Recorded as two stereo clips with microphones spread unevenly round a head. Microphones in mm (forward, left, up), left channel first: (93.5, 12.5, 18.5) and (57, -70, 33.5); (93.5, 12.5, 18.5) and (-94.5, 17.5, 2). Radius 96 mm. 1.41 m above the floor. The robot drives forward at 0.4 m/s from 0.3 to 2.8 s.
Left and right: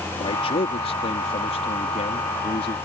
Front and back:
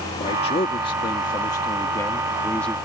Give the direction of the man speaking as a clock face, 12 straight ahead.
10 o'clock.